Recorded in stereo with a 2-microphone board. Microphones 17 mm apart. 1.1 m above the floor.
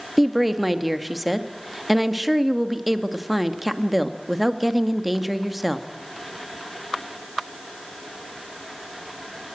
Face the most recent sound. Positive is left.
turn(degrees=0)  # may be behind; listen again after turning